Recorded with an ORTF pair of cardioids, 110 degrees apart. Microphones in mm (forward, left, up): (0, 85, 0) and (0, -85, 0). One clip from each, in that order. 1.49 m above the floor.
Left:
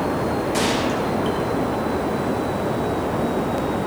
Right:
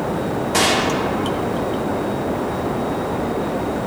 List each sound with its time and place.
0.5 s a gunshot: 40° right, 2.5 m